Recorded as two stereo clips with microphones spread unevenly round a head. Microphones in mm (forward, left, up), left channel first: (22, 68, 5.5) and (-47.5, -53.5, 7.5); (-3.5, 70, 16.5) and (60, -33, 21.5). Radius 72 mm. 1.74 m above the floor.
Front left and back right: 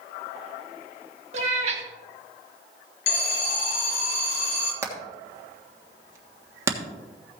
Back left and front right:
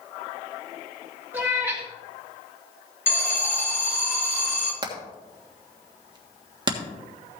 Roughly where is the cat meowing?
Behind right.